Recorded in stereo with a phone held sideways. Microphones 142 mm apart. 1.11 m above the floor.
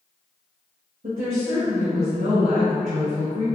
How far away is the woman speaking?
About 0.9 m.